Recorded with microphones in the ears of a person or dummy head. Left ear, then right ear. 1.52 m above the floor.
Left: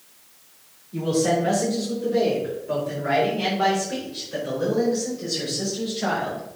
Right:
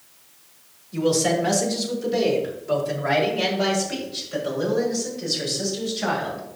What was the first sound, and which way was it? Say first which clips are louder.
A man speaking: right 1 dB; 45° right (ahead or behind).